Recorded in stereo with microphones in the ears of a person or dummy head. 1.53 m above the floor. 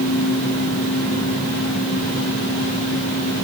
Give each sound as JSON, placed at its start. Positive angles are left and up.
{"t": 0.0, "sound": "a fan", "side_deg": -65, "distance_m": 3.5}